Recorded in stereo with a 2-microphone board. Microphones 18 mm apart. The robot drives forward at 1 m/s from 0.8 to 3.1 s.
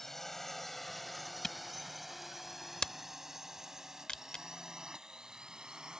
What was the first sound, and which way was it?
A drone, 15° left (ahead or behind).